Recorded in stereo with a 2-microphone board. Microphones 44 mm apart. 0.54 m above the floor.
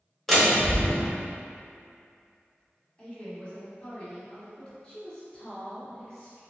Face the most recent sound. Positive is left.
turn(degrees=20)  # may be behind; listen again after turning